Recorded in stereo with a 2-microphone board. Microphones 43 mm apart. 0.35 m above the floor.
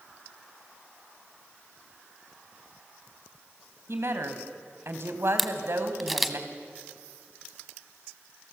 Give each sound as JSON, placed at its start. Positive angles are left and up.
{"t": 3.9, "sound": "a woman speaking", "side_deg": -60, "distance_m": 2.5}
{"t": 5.4, "sound": "a camera shutter", "side_deg": 0, "distance_m": 1.1}